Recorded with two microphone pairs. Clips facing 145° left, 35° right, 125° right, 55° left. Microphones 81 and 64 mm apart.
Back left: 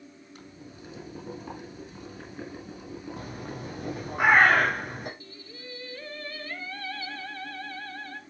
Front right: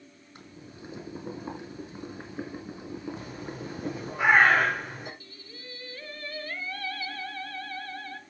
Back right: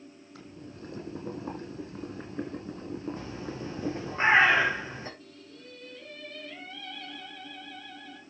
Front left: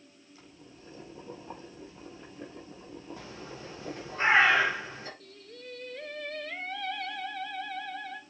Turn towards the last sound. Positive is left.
turn(degrees=85)